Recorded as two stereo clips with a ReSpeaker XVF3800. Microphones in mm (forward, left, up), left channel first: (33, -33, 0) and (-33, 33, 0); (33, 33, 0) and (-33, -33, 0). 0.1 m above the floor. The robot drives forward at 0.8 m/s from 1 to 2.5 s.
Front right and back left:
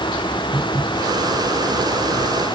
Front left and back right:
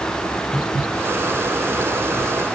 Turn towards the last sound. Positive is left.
No sound to turn to.